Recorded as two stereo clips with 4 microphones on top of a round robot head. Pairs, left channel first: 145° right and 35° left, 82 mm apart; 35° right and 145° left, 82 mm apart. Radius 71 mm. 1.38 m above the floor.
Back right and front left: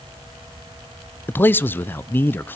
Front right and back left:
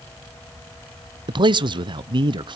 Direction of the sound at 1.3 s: 150° left.